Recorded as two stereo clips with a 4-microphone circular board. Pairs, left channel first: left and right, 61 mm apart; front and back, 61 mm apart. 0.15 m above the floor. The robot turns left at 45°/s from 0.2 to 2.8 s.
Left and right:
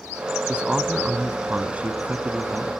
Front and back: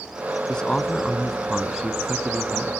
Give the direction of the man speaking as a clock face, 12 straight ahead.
2 o'clock.